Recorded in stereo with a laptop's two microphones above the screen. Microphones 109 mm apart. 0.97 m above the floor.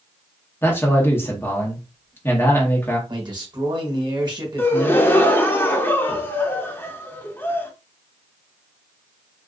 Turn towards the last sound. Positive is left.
turn(degrees=20)  # may be behind; listen again after turning